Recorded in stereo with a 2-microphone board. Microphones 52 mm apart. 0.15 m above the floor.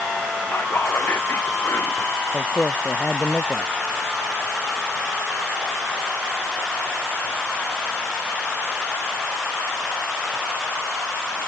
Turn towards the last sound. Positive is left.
turn(degrees=30)  # may be behind; listen again after turning